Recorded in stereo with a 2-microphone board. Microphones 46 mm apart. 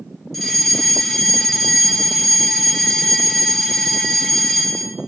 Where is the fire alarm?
5° left (ahead or behind), 2.0 m.